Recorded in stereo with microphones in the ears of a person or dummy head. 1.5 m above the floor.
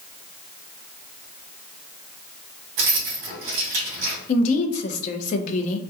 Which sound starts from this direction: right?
Keys jangling, at 2.8 s.